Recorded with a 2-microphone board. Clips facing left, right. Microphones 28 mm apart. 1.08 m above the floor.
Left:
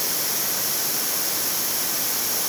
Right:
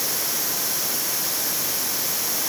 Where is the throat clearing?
I don't hear throat clearing.